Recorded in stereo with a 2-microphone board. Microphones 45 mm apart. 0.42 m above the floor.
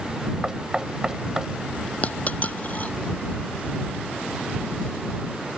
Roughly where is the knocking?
Centre.